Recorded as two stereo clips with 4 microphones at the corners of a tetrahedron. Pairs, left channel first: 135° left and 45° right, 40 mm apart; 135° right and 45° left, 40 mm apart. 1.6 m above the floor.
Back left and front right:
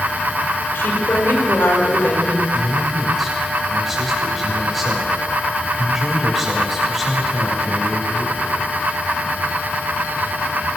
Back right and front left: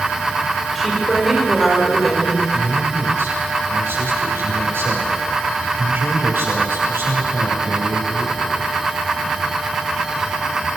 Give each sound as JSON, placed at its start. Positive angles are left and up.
{"t": 0.8, "sound": "a woman speaking", "azimuth_deg": 135, "distance_m": 5.0}
{"t": 2.5, "sound": "a man speaking", "azimuth_deg": 45, "distance_m": 6.5}